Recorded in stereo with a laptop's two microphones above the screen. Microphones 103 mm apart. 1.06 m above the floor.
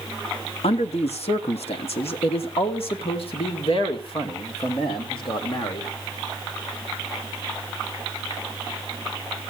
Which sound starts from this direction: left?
A man speaking, at 0.6 s.